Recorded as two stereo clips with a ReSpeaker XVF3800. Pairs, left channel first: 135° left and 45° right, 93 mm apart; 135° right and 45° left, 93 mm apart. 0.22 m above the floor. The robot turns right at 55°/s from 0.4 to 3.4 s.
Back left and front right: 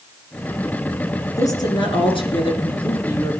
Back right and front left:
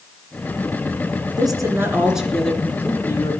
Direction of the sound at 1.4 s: 85° left.